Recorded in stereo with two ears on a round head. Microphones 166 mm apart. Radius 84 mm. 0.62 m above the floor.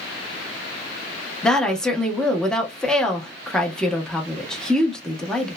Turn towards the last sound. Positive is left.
turn(degrees=5)  # may be behind; listen again after turning